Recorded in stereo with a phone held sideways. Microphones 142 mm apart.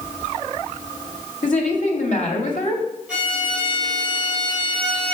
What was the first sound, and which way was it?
A woman speaking, 65° left (ahead or behind).